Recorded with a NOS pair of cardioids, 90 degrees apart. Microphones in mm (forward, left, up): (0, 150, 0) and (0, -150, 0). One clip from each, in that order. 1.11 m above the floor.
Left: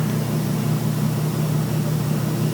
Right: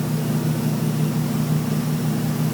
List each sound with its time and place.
Only background noise.